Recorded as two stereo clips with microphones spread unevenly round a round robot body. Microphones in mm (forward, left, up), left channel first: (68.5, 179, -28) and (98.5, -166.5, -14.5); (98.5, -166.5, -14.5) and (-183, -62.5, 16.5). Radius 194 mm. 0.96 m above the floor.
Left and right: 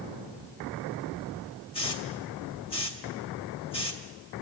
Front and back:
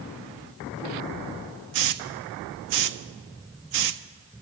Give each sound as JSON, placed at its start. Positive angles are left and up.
{"t": 1.7, "sound": "a hiss", "azimuth_deg": 170, "distance_m": 0.7}